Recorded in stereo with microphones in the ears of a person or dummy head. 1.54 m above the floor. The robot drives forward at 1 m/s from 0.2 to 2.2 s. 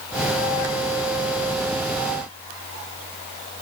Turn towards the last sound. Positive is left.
No sound to turn to.